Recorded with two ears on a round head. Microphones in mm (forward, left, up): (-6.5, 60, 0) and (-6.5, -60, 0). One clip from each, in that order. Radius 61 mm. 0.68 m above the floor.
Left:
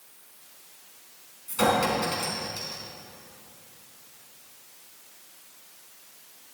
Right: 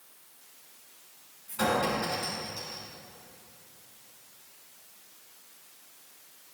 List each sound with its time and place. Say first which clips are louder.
1.5 s a clink: left 4 dB; 60° left (ahead or behind), 4.5 m